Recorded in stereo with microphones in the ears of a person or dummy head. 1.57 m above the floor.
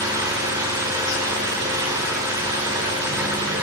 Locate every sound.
0.0 s an engine running: 10° right (ahead or behind), 1.5 m